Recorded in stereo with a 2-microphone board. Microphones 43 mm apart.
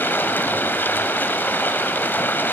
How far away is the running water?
About 1.3 m.